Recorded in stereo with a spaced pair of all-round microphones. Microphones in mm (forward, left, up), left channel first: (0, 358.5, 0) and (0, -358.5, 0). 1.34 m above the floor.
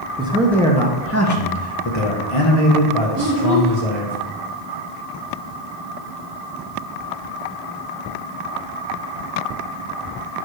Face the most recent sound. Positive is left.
turn(degrees=-20)  # may be behind; listen again after turning